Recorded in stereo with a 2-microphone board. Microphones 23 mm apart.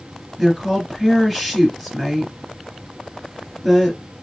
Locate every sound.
0.4 s a woman speaking: 5° left (ahead or behind), 3 m